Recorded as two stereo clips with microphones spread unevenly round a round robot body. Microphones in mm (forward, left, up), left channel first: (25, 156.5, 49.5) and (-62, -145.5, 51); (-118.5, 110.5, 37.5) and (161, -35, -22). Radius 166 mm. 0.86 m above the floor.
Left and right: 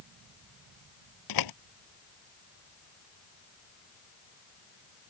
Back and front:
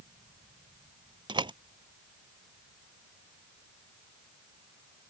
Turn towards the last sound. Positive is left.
turn(degrees=50)